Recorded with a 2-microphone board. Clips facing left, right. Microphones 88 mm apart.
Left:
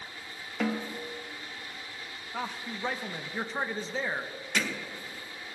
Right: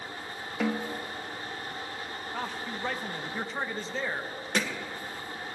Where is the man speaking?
5° left (ahead or behind), 1.0 m.